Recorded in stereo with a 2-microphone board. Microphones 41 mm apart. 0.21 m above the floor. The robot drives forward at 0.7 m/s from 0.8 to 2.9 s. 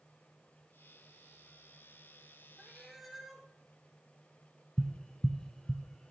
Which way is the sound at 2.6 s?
Centre (ahead or behind).